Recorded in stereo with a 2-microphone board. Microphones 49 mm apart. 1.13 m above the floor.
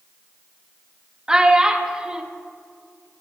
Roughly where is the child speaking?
Centre.